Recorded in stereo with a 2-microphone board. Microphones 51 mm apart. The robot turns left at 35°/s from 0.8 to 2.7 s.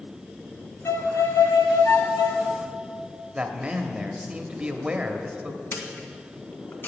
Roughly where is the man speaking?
Centre.